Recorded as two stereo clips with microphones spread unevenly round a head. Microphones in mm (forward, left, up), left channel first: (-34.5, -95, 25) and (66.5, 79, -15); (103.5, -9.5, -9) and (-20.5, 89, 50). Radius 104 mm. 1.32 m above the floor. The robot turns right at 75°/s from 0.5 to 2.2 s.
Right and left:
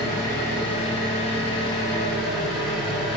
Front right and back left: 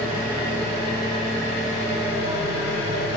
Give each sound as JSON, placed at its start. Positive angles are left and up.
{"t": 0.0, "sound": "an engine running", "azimuth_deg": -170, "distance_m": 1.1}